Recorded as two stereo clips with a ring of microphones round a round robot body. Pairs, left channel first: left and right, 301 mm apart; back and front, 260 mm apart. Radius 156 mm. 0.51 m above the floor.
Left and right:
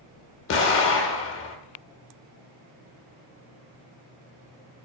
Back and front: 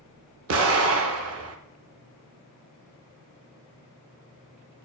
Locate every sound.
0.5 s an explosion: 40° left, 0.5 m